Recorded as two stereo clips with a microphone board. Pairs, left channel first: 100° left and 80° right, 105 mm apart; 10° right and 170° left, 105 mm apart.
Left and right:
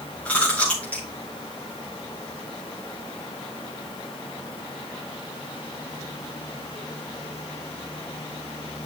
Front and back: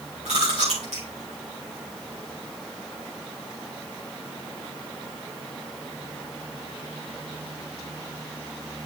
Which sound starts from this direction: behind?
Chewing, at 0.2 s.